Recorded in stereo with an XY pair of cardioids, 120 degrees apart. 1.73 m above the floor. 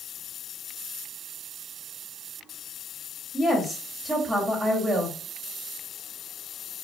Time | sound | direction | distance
3.3 | a woman speaking | 25° right | 1.0 m